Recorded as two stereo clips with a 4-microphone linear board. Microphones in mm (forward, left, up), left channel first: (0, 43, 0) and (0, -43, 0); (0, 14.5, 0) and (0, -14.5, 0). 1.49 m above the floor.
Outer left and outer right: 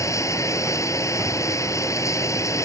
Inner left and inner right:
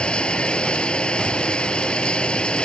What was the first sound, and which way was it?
Running water, 35° left (ahead or behind).